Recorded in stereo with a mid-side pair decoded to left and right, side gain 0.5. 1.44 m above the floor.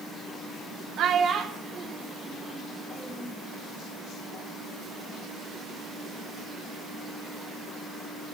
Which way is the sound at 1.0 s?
70° right.